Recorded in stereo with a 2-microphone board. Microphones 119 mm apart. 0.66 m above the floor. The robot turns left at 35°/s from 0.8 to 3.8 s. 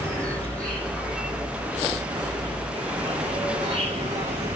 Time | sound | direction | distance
0.0 | an insect | 10° left | 6 m